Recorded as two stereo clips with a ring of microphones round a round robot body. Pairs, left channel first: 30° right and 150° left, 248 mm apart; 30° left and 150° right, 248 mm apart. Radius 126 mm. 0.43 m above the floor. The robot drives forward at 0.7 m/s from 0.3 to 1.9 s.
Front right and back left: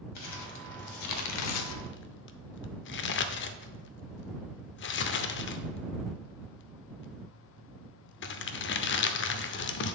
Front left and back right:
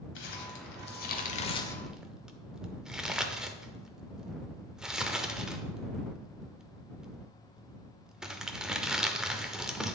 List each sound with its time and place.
0.1 s crumpling: 15° right, 1.4 m; by 9.9 s 65° right, 0.5 m